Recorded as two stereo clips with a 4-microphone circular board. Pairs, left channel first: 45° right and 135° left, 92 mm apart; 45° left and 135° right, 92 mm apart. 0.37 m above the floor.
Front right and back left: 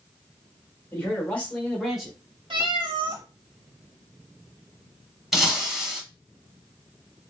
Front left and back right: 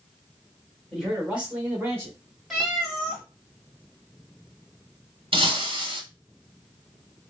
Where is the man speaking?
45° right, 1.2 m; by 2.1 s 140° right, 1.2 m.